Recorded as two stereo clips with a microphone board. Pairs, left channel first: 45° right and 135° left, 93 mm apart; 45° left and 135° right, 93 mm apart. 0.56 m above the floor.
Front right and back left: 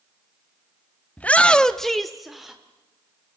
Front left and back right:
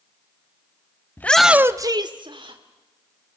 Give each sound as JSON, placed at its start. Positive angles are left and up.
{"t": 1.2, "sound": "a shout", "azimuth_deg": 10, "distance_m": 0.6}